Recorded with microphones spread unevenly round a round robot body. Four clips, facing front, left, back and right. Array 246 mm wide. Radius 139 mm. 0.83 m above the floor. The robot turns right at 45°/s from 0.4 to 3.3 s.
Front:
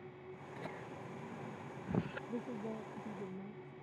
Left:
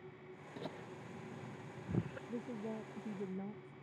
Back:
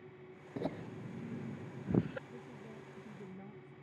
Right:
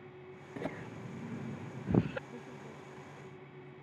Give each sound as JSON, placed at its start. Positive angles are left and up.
{"t": 0.6, "sound": "laughter", "azimuth_deg": -155}
{"t": 2.3, "sound": "a woman speaking", "azimuth_deg": 25}